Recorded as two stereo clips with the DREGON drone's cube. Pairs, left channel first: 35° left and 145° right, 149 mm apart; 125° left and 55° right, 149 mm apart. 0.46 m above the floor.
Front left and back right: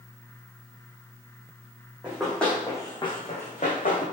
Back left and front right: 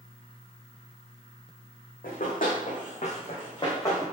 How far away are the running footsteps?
About 1.6 m.